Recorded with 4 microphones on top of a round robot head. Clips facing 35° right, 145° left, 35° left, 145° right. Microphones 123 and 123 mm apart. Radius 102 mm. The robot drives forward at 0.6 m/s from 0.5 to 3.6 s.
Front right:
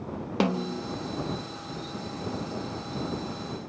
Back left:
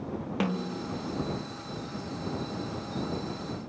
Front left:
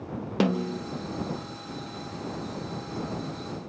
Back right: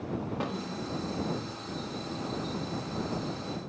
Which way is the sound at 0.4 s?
20° left.